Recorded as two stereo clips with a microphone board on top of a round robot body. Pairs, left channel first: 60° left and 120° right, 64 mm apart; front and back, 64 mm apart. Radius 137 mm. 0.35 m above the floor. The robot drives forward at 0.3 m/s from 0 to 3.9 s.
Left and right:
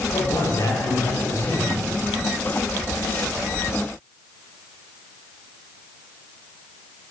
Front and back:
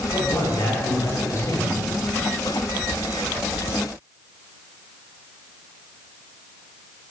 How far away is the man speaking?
About 2.5 m.